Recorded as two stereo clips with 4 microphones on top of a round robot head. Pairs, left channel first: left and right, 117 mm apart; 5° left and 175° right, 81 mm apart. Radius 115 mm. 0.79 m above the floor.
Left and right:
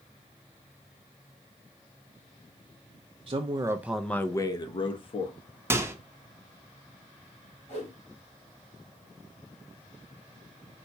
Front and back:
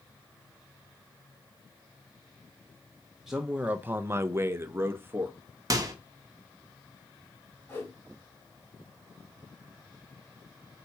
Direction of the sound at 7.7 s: 70° left.